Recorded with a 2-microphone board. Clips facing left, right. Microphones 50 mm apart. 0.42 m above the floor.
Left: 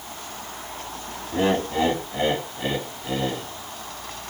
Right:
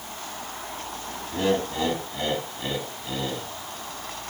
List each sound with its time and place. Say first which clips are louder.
1.3 s laughter: left 3 dB; 25° left (ahead or behind), 2.5 m